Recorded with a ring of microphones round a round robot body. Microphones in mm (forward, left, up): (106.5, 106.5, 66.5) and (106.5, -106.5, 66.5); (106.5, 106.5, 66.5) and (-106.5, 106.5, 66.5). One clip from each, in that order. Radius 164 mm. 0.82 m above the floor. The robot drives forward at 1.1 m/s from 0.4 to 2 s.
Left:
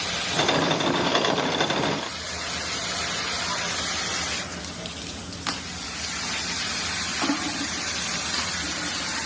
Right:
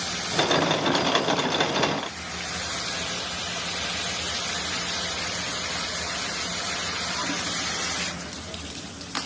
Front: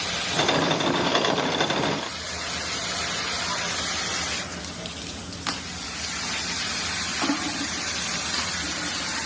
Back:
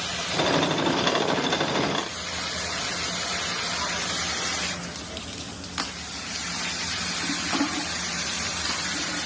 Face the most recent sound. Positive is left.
No sound to turn to.